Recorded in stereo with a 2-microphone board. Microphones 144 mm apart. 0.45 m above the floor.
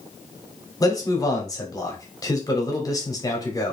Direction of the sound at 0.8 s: 25° left (ahead or behind).